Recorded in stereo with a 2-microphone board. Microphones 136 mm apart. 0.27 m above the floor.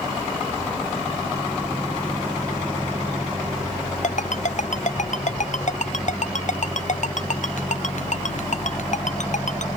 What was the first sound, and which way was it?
A ringtone, 65° left (ahead or behind).